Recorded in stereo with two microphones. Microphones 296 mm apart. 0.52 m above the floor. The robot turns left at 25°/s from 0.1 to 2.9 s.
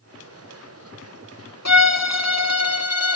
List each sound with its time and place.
1.6 s a violin: 95° left, 1.6 m; by 3.2 s 65° left, 1.6 m